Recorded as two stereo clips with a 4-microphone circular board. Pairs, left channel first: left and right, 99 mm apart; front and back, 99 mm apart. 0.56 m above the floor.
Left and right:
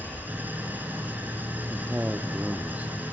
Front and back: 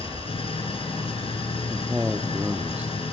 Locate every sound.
0.0 s an engine running: 20° right, 2.5 m
1.7 s a man speaking: 135° right, 0.6 m